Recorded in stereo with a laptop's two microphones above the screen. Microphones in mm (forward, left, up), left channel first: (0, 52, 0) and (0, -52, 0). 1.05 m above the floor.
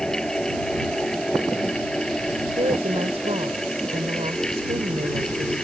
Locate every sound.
0.0 s a fan: 5° left (ahead or behind)
2.6 s a woman speaking: 75° right (ahead or behind)